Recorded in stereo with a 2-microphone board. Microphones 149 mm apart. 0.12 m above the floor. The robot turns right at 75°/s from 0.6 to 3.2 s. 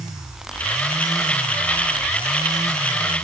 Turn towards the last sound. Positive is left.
No sound to turn to.